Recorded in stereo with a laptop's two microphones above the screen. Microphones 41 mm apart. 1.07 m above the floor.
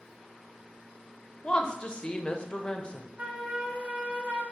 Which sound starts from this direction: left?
A woman speaking, at 1.4 s.